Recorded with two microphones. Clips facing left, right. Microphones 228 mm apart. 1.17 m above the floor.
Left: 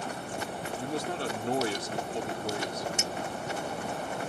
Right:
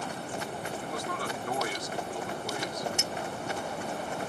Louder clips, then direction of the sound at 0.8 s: Left 6 dB; 30° left (ahead or behind).